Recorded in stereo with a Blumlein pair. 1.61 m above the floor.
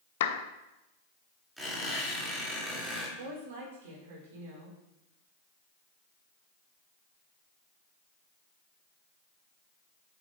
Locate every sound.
0.2 s a clap: 55° left, 0.7 m
1.6 s a squeak: 5° right, 3.5 m
3.2 s a woman speaking: 60° right, 4.5 m